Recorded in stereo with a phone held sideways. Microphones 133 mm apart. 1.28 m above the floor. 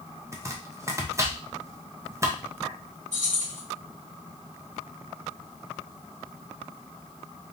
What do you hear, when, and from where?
0.3 s chopping: 25° right (ahead or behind), 0.7 m
3.1 s keys jangling: 65° right (ahead or behind), 1.9 m